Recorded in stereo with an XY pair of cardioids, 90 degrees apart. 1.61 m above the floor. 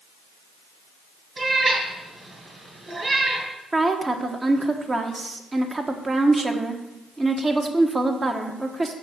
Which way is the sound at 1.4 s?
30° right.